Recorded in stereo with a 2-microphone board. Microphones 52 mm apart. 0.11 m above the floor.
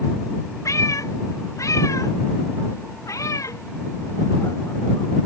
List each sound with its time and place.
0.7 s a cat meowing: 75° left (ahead or behind); by 5.3 s 65° left (ahead or behind)